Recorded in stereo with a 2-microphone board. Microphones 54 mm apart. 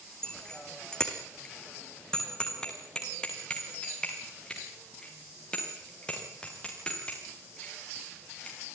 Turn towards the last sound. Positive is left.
turn(degrees=20)  # may be behind; listen again after turning